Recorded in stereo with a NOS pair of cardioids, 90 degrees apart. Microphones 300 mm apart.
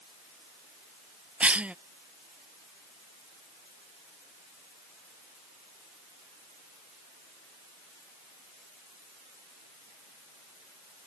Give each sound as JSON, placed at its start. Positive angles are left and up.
{"t": 1.4, "sound": "a cough", "azimuth_deg": -5}